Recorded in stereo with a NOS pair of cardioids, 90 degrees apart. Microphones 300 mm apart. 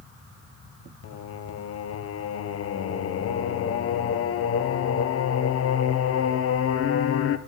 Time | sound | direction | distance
1.0 | singing | 55° left | 0.6 m